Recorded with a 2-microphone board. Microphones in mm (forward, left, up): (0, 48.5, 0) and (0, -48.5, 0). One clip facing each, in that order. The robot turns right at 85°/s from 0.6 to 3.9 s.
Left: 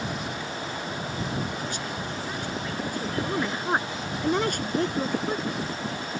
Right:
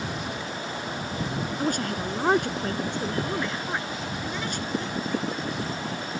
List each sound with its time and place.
1.6 s a woman speaking: 140° right; by 5.6 s 55° left